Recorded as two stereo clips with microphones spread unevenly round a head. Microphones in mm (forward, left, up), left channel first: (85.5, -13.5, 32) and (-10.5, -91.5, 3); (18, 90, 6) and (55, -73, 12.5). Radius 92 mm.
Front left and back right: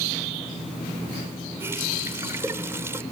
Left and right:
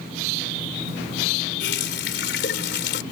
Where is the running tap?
140° left.